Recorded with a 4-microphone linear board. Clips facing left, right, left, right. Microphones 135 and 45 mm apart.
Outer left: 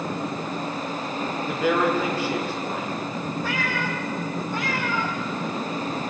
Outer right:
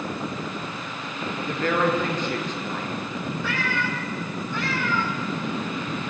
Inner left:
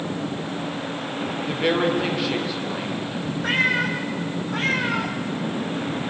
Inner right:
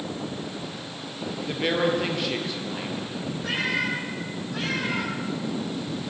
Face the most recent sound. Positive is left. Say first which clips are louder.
# outer left 1 dB, inner left 5 dB
turn(degrees=40)  # may be behind; listen again after turning